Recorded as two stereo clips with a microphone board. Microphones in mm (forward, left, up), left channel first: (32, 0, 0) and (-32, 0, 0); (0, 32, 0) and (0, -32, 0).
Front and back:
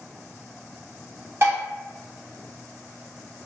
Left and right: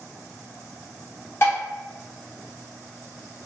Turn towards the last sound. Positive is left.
turn(degrees=140)